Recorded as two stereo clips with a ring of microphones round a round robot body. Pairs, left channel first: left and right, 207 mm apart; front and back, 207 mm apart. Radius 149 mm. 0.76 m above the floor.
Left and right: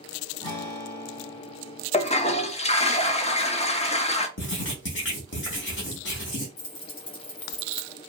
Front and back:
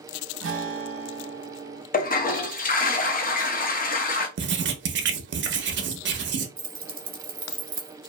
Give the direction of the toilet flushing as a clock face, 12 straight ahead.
11 o'clock.